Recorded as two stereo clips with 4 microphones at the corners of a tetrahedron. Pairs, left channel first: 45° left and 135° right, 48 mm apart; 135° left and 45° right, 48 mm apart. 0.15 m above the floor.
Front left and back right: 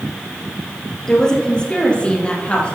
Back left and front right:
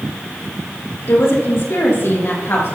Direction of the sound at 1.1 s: 120° left.